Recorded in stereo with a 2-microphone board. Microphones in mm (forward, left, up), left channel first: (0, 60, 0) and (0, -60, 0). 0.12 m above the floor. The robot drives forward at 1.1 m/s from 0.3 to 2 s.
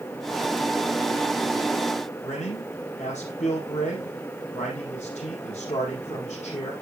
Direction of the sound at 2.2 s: 70° left (ahead or behind).